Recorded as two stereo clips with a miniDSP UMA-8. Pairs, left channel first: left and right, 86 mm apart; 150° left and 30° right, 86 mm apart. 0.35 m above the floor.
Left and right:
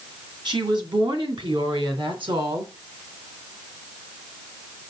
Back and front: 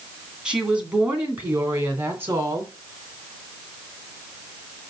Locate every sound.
0.5 s a woman speaking: 110° right, 2.5 m; by 2.7 s 85° right, 3.5 m